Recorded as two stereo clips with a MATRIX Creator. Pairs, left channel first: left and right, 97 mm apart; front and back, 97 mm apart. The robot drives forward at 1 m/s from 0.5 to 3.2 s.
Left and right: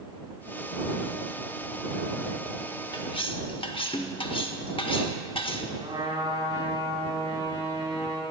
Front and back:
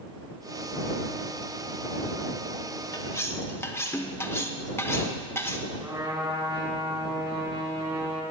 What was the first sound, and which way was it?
Cutlery clinking, 50° left.